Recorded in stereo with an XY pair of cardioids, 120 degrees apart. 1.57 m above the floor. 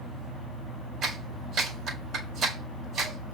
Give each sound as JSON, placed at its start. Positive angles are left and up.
{"t": 1.0, "sound": "a clap", "azimuth_deg": -60, "distance_m": 4.5}